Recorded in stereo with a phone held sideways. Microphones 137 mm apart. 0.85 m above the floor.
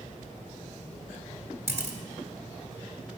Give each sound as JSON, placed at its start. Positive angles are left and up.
{"t": 1.7, "sound": "a camera shutter", "side_deg": -15, "distance_m": 1.9}